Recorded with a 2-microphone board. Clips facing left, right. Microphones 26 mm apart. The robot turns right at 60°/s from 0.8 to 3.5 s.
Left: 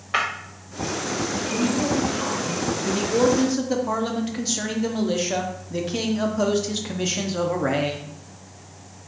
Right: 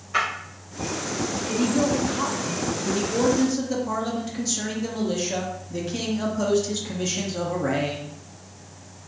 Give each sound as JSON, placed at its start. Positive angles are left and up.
{"t": 0.1, "sound": "breaking glass", "side_deg": 55, "distance_m": 1.5}
{"t": 1.5, "sound": "a woman speaking", "azimuth_deg": -135, "distance_m": 1.0}
{"t": 2.9, "sound": "a man speaking", "side_deg": 10, "distance_m": 0.6}